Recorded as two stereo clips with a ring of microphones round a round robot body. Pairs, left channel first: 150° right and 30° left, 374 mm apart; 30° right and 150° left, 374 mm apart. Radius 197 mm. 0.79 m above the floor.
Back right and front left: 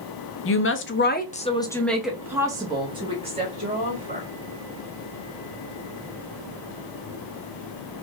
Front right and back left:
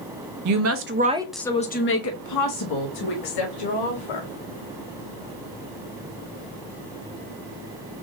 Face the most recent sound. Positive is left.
turn(degrees=-40)